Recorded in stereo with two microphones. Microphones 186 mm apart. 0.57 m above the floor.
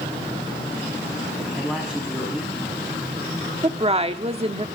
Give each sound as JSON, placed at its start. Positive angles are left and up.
{"t": 1.6, "sound": "a man speaking", "side_deg": 0, "distance_m": 5.0}
{"t": 3.6, "sound": "a woman speaking", "side_deg": -30, "distance_m": 1.2}